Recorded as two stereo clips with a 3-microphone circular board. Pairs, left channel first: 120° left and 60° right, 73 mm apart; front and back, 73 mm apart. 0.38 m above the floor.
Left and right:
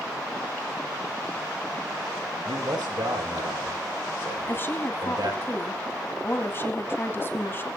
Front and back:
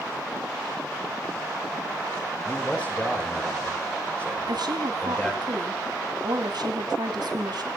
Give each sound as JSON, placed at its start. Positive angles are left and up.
{"t": 2.5, "sound": "a man speaking", "azimuth_deg": -75, "distance_m": 7.5}
{"t": 4.5, "sound": "a woman speaking", "azimuth_deg": 175, "distance_m": 3.0}